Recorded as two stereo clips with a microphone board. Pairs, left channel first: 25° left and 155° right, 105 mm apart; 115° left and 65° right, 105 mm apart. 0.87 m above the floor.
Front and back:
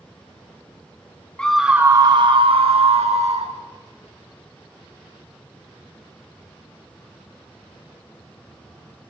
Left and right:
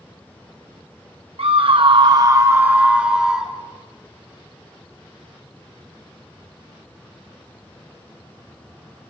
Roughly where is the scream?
Ahead right.